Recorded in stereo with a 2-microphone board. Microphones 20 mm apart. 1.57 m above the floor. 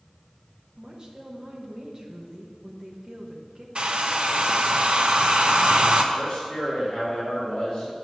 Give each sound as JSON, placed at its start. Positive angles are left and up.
{"t": 0.8, "sound": "a woman speaking", "side_deg": -40, "distance_m": 1.4}
{"t": 3.8, "sound": "a hair dryer", "side_deg": -50, "distance_m": 0.7}
{"t": 6.1, "sound": "a man speaking", "side_deg": 25, "distance_m": 2.5}